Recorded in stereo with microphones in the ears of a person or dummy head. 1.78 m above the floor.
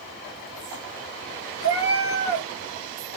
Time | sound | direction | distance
1.6 | a cat meowing | 15° right (ahead or behind) | 1.8 m